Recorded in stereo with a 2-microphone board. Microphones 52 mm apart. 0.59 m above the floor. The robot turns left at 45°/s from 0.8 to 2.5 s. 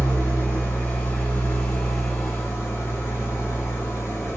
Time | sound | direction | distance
0.0 | an engine running | 130° left | 1.5 m